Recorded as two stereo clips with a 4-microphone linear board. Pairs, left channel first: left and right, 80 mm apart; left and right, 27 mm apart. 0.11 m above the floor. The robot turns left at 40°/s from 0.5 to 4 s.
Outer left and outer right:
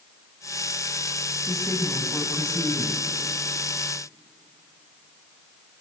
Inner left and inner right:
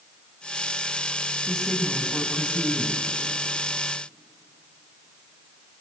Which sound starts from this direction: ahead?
A woman speaking, at 1.5 s.